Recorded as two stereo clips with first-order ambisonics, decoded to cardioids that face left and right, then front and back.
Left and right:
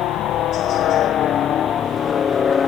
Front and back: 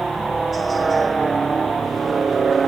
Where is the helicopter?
105° left; by 2.7 s 135° left.